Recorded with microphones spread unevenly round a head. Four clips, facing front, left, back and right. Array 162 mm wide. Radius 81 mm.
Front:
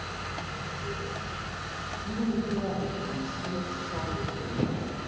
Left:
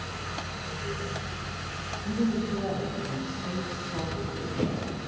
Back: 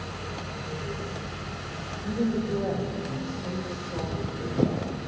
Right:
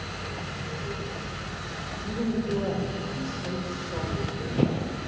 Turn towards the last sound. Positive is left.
turn(degrees=-150)